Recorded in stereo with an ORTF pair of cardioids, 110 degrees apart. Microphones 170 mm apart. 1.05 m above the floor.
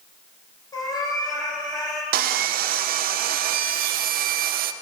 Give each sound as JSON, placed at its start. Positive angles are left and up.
{"t": 0.7, "sound": "a cat meowing", "azimuth_deg": 25, "distance_m": 3.5}
{"t": 2.1, "sound": "sawing", "azimuth_deg": -60, "distance_m": 0.6}